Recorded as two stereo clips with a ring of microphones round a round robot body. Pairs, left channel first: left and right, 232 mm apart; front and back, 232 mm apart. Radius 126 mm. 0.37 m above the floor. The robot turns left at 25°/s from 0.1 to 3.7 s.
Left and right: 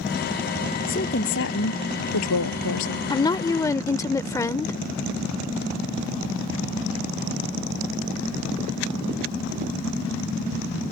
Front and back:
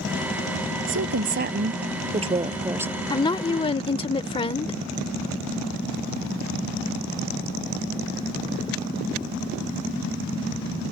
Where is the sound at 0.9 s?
150° left; by 3.0 s 95° left.